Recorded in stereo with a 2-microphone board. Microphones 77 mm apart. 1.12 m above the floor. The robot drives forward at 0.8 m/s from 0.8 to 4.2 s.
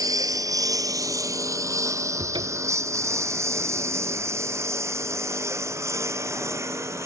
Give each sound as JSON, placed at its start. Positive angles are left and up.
{"t": 0.0, "sound": "a lawn mower", "side_deg": -50}
{"t": 2.2, "sound": "a cupboard door", "side_deg": -85}